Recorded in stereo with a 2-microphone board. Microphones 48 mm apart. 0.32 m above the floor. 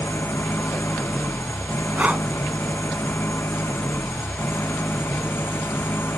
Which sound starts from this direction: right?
Breathing, at 2.0 s.